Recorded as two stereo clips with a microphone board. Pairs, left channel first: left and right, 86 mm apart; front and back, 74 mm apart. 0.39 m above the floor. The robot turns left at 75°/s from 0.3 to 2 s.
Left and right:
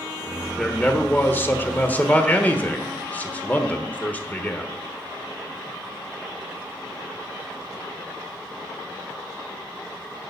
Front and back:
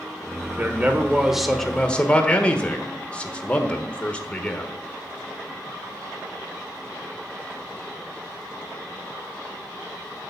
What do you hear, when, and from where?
0.6 s a man speaking: 160° left, 1.1 m; by 4.7 s 50° left, 1.1 m